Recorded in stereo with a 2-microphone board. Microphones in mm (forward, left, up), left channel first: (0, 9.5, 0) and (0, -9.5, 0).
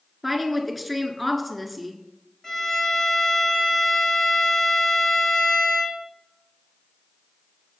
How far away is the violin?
About 4 m.